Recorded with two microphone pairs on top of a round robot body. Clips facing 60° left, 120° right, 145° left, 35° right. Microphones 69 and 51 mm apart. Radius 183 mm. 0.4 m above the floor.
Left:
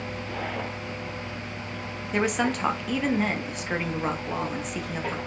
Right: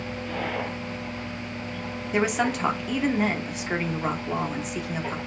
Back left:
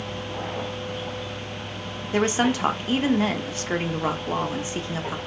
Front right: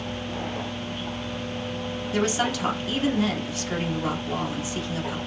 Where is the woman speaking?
155° left, 0.8 m.